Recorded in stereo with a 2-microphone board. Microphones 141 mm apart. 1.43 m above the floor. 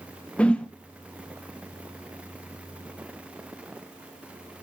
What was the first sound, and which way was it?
A whoosh, 10° left (ahead or behind).